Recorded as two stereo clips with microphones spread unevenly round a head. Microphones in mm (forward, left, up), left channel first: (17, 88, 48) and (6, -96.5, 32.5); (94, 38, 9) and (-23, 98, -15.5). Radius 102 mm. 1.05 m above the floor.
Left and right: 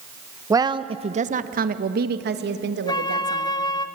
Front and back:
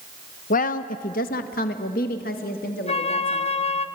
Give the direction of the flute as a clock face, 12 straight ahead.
11 o'clock.